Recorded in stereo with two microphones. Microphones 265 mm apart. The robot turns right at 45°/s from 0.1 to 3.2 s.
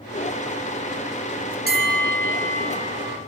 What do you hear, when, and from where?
1.7 s a bell: 70° right, 0.7 m; by 3.2 s straight ahead, 0.7 m